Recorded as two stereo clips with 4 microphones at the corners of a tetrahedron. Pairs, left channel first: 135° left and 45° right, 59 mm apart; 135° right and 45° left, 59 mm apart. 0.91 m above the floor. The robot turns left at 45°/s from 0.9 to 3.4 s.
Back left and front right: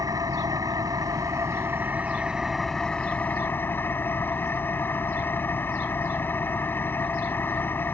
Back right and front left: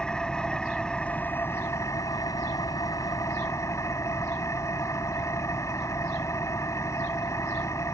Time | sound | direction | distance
0.0 | an engine running | 60° right | ?